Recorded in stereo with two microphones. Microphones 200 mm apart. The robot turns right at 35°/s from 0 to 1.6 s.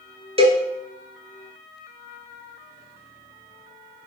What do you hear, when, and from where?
0.4 s a cowbell: 30° right (ahead or behind), 0.7 m; by 0.6 s 35° right (ahead or behind), 0.7 m